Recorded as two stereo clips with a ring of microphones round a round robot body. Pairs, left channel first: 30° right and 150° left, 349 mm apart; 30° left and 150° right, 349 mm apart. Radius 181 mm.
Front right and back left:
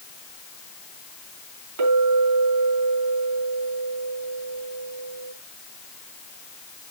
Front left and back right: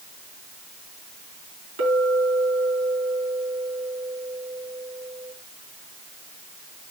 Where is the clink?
155° left, 4 m.